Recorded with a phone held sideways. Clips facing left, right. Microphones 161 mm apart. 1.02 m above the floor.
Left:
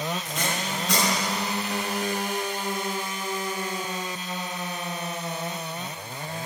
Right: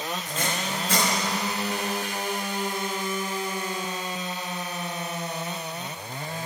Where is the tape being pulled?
75° left (ahead or behind), 7.5 m.